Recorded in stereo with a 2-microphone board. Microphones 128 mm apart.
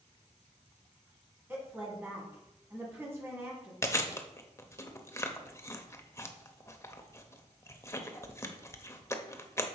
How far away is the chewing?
About 0.6 m.